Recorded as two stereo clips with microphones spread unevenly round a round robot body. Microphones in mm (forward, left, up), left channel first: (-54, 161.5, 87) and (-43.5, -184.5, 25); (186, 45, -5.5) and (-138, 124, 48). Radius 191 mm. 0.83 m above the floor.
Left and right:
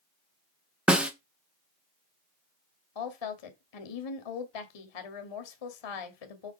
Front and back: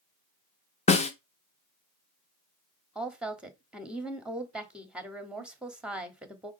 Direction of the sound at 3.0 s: 75° left.